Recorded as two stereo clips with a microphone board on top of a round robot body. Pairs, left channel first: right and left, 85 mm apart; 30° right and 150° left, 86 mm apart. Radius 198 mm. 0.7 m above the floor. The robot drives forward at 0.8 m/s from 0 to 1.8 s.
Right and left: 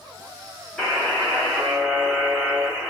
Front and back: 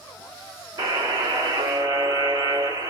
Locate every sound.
0.8 s a buzzer: 175° right, 2.5 m